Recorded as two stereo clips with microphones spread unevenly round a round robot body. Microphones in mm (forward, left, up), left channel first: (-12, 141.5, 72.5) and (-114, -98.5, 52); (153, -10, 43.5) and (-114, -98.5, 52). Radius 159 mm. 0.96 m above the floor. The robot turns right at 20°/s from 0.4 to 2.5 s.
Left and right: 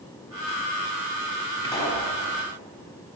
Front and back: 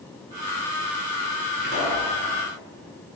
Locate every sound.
1.6 s a pop: 140° left, 7 m; by 2.1 s 150° left, 7 m